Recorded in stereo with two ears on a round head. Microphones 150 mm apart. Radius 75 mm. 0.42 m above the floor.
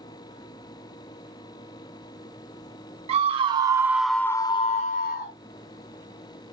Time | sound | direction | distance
3.1 | a scream | 40° right (ahead or behind) | 2 m